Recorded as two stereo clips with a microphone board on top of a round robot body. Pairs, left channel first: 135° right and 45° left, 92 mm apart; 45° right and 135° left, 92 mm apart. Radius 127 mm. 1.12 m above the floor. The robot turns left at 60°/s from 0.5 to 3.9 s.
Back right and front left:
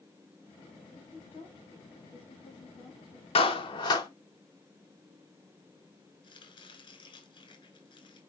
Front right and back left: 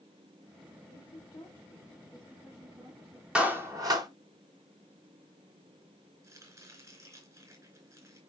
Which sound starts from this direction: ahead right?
A woman speaking, at 0.9 s.